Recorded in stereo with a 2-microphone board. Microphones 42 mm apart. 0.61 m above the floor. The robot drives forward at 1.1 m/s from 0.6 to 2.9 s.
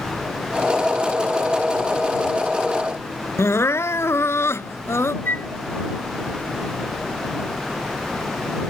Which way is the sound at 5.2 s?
55° left (ahead or behind).